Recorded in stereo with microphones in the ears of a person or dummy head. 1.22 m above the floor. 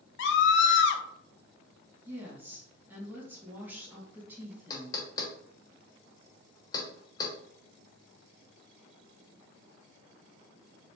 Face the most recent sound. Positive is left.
turn(degrees=20)  # may be behind; listen again after turning